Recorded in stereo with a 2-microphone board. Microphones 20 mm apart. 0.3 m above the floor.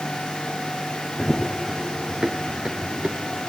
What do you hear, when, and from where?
1.2 s running footsteps: 5° right (ahead or behind), 0.8 m; by 3.5 s 60° right (ahead or behind), 2.5 m